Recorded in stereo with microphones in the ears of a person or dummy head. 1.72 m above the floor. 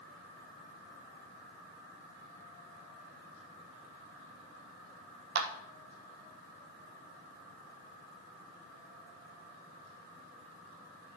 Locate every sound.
5.3 s a clap: 60° right (ahead or behind), 1.6 m